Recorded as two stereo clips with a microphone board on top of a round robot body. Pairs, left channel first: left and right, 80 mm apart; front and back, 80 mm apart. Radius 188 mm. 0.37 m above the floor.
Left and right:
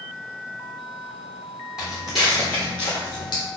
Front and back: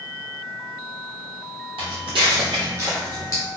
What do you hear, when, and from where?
1.8 s footsteps: 175° right, 1.2 m; by 3.4 s 50° left, 0.8 m